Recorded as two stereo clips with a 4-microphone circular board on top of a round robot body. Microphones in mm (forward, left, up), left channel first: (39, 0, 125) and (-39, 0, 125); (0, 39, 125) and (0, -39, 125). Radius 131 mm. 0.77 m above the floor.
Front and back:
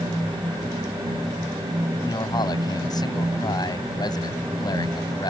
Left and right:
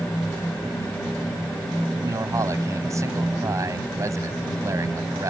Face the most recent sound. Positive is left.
turn(degrees=-35)